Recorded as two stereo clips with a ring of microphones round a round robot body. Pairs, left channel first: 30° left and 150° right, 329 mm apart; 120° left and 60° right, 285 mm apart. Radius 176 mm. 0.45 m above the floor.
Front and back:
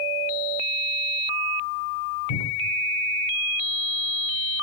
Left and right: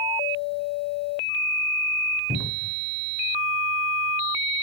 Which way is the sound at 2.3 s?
25° left.